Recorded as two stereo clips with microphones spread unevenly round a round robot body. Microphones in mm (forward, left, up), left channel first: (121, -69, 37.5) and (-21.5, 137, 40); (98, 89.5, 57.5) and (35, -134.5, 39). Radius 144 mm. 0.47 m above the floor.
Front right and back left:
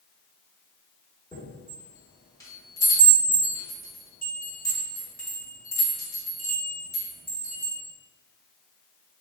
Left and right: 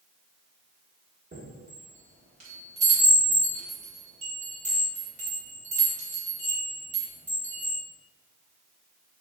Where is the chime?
125° right, 1.2 m.